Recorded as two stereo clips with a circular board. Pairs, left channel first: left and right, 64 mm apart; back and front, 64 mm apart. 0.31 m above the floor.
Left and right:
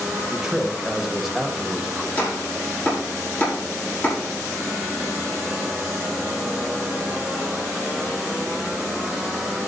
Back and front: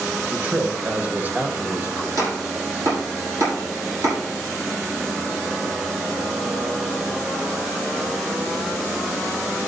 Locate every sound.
0.3 s a man speaking: 10° right, 1.3 m
2.2 s chopping: 30° left, 6 m